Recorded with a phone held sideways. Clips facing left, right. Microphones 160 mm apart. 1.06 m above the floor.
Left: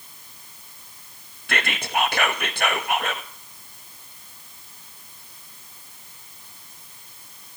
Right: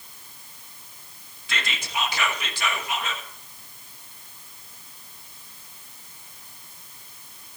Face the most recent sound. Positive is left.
turn(degrees=60)  # may be behind; listen again after turning